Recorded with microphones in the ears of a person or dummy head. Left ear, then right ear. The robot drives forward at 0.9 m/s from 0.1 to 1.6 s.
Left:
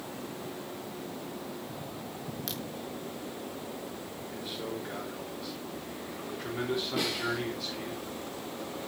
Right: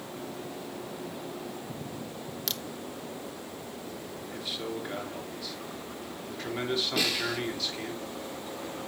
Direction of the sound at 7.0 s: 30° right (ahead or behind).